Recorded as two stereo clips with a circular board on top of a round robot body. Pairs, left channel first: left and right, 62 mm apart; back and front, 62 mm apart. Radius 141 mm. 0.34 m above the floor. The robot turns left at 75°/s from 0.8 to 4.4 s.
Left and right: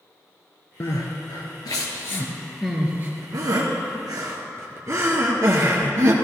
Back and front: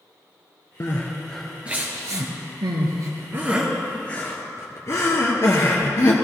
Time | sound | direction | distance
0.8 | crying | 135° left | 1.5 m